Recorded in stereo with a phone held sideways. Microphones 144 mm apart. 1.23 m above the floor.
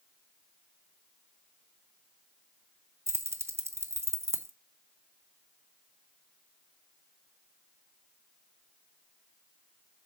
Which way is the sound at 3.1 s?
15° right (ahead or behind).